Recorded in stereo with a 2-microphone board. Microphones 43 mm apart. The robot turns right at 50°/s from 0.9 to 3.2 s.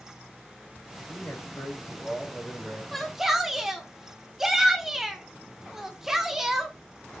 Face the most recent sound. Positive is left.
turn(degrees=-10)  # may be behind; listen again after turning